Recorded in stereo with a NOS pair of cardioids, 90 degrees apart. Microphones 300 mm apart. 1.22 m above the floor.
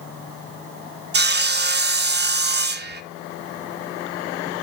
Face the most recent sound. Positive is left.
turn(degrees=-35)